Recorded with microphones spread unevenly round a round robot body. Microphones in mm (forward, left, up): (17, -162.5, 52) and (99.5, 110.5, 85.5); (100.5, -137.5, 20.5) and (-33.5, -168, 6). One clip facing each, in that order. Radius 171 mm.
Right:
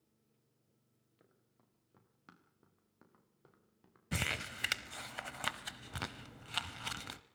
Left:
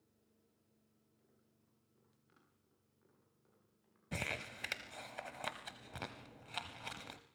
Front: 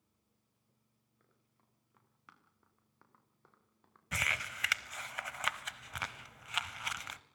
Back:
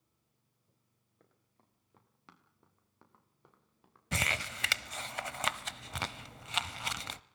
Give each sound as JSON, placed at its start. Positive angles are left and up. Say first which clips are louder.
{"t": 1.2, "sound": "running footsteps", "louder": "right 5 dB, back 6 dB", "azimuth_deg": -120, "distance_m": 6.5}
{"t": 4.1, "sound": "crumpling", "louder": "right 3 dB, back 5 dB", "azimuth_deg": -165, "distance_m": 0.7}